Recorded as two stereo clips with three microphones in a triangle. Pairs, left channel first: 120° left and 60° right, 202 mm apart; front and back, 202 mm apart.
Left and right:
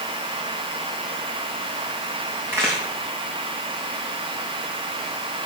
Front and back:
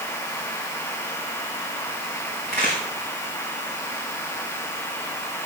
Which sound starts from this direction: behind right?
A crack, at 2.5 s.